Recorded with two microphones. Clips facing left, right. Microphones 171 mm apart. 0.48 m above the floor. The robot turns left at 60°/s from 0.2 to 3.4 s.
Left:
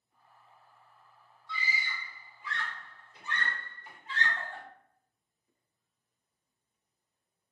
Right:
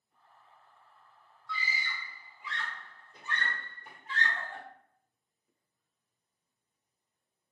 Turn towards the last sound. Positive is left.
turn(degrees=-45)  # may be behind; listen again after turning